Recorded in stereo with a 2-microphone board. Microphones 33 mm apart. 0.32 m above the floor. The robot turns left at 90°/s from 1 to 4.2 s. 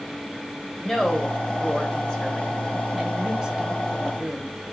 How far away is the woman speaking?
About 1.3 m.